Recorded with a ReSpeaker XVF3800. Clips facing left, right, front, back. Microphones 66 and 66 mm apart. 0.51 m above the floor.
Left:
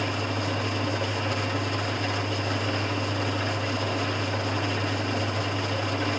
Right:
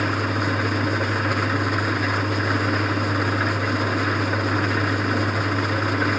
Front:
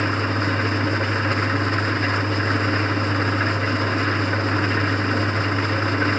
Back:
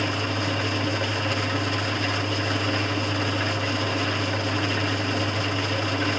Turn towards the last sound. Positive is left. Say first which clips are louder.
# right 6 dB, front 4 dB
turn(degrees=-55)